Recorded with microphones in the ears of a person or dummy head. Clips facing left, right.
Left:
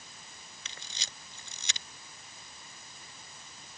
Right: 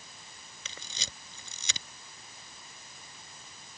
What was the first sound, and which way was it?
A camera shutter, 75° right (ahead or behind).